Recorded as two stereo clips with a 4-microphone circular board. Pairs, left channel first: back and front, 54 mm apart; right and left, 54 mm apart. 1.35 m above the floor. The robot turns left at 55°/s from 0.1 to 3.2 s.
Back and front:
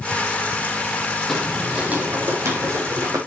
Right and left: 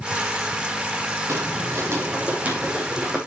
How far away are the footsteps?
About 3 m.